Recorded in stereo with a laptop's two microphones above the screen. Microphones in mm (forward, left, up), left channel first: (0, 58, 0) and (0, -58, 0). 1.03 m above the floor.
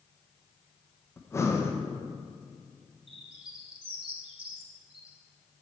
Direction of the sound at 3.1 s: 50° right (ahead or behind).